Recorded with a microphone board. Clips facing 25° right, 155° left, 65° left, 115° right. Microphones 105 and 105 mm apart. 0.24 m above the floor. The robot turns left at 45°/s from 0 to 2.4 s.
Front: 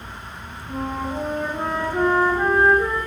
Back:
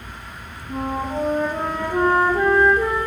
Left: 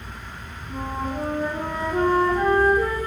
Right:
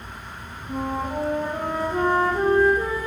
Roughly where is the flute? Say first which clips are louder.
Back 2 dB, right 2 dB; behind right.